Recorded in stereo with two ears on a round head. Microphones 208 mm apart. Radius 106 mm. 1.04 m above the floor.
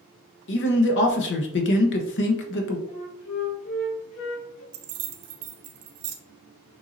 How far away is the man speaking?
About 0.8 m.